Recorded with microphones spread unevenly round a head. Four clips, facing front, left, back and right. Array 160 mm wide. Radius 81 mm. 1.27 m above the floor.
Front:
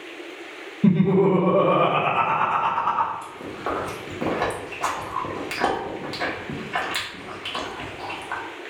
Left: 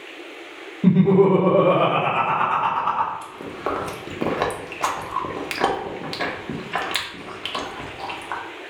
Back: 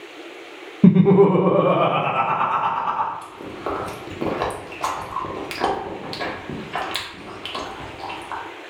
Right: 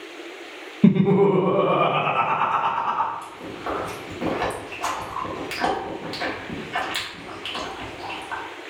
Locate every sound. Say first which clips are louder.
0.8 s laughter: left 1 dB, back 5 dB; 160° right, 0.5 m; by 3.1 s 125° left, 1.3 m
3.2 s chewing: left 3 dB, back 1 dB; 95° left, 0.9 m